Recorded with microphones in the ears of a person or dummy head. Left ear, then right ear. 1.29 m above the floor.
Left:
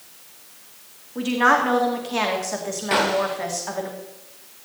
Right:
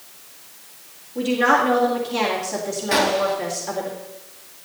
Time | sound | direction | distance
1.1 | a woman speaking | 35° left (ahead or behind) | 2.5 m
2.9 | a gunshot | 15° left (ahead or behind) | 1.0 m